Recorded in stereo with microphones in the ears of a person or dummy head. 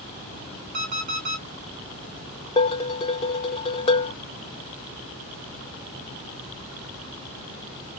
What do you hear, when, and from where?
0.7 s an alarm clock: 40° right (ahead or behind), 2 m
2.6 s dishes clattering: 30° left (ahead or behind), 0.7 m